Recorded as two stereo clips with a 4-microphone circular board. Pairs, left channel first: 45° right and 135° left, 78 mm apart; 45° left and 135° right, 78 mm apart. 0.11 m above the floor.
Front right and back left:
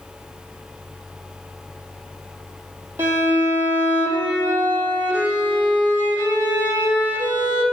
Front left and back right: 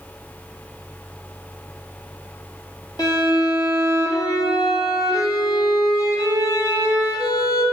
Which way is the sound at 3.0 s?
75° left.